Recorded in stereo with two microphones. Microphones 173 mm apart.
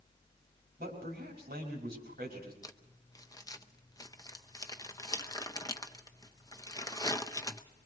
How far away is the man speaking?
About 5.5 m.